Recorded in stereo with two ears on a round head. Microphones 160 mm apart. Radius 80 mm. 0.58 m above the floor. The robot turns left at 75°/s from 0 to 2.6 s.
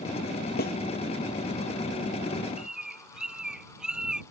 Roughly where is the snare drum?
Left.